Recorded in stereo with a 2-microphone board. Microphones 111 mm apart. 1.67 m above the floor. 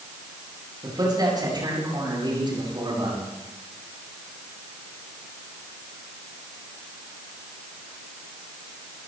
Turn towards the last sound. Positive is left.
turn(degrees=-45)  # may be behind; listen again after turning